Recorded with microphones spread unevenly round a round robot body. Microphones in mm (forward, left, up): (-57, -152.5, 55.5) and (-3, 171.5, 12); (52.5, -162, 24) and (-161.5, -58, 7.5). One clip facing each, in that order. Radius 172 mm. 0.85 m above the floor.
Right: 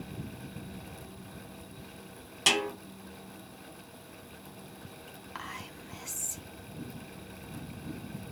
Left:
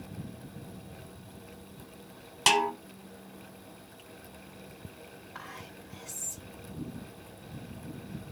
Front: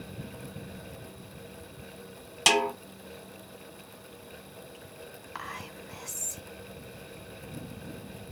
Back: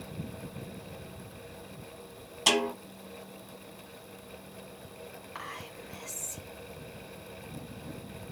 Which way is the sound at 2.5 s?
5° right.